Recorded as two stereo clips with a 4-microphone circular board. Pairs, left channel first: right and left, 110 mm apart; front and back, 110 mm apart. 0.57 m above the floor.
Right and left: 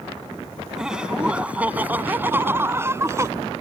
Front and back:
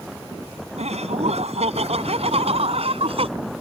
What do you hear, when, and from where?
0.8 s laughter: 175° left; by 3.3 s 155° left